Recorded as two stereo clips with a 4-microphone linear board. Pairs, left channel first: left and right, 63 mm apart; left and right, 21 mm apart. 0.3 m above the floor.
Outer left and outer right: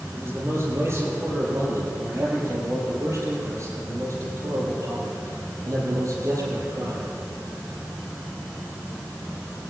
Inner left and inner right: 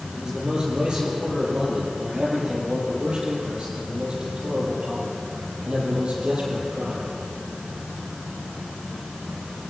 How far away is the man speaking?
About 9 m.